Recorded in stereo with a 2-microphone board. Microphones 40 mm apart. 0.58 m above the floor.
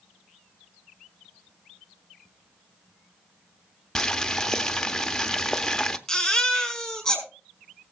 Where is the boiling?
15° left (ahead or behind), 0.6 m.